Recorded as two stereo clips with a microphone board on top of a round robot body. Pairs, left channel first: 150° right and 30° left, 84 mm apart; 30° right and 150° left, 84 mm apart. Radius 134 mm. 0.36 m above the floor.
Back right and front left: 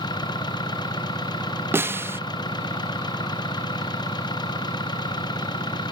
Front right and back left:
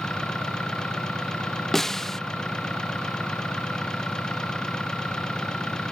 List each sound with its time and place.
0.0 s an engine running: 115° right
1.7 s a snare drum: 50° left